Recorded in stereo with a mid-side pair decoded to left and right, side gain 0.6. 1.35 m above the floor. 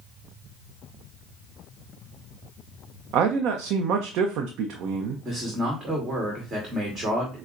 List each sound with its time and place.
3.1 s a man speaking: 65° right, 0.6 m
5.2 s a man speaking: 25° right, 1.4 m